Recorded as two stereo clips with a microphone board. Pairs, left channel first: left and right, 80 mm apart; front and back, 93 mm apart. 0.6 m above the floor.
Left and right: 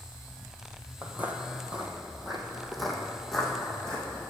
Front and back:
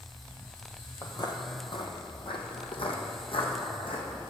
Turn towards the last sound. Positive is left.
turn(degrees=10)